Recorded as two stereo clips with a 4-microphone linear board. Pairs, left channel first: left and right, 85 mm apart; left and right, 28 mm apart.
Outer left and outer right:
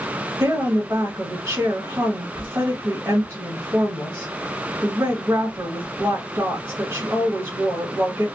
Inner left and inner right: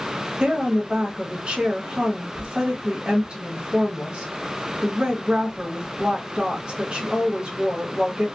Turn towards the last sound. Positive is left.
turn(degrees=-35)  # may be behind; listen again after turning